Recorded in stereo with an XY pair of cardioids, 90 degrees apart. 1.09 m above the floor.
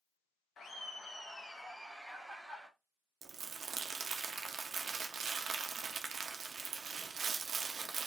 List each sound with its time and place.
0.6 s laughter: 60° left, 0.6 m; by 2.7 s 10° right, 1.8 m
3.2 s crumpling: 60° right, 0.6 m